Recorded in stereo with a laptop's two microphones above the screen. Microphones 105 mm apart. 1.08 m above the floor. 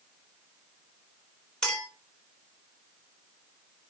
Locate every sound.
1.6 s a clink: 5° left (ahead or behind), 3 m